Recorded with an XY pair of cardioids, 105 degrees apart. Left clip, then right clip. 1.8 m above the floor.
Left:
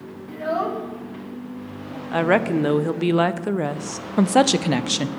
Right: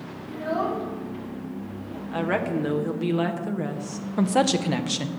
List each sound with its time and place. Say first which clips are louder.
0.3 s a child speaking: left 2 dB; 50° left, 2 m; by 2.0 s 25° left, 1.9 m
2.1 s a woman speaking: left 7 dB; 50° left, 0.6 m
4.2 s a woman speaking: left 5 dB; 35° left, 0.5 m